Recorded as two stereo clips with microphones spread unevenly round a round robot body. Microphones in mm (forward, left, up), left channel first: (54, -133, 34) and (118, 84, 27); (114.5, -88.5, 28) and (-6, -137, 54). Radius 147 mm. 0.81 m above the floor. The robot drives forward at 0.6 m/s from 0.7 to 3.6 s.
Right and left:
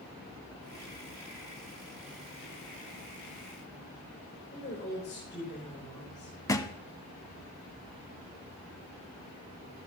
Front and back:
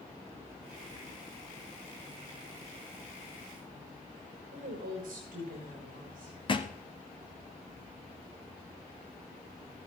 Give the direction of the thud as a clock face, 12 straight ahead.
1 o'clock.